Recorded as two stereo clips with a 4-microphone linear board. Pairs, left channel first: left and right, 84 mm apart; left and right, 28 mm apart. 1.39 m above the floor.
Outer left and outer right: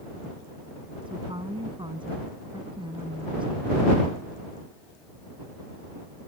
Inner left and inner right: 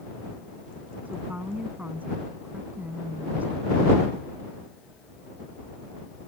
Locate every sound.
1.1 s a woman speaking: 70° right (ahead or behind)